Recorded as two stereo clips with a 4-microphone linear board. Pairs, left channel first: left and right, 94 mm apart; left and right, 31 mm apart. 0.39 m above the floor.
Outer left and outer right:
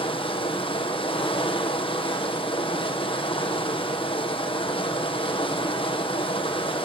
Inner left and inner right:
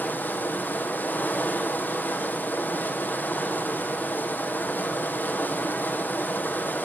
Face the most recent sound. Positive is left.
turn(degrees=75)  # may be behind; listen again after turning